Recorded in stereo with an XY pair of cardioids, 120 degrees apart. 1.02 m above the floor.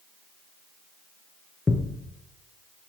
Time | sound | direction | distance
1.7 | a thud | 20° left | 3 m